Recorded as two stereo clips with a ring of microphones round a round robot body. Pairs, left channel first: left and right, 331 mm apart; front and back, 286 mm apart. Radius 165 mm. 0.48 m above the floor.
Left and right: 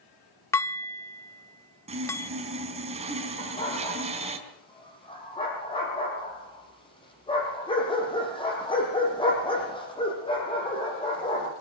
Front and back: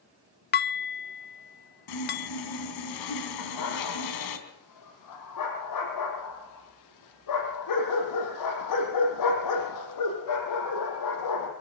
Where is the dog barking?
15° left, 7 m.